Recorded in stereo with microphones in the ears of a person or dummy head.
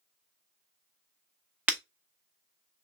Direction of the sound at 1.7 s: 10° right (ahead or behind).